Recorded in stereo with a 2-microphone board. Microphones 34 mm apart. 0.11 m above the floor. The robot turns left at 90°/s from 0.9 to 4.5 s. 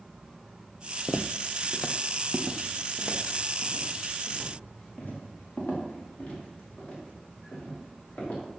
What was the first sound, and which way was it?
Footsteps, 45° left (ahead or behind).